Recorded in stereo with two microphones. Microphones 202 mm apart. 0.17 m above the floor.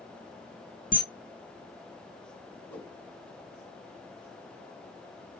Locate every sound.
0.9 s a camera shutter: 40° left (ahead or behind), 1.3 m
2.7 s a whoosh: 10° left (ahead or behind), 1.8 m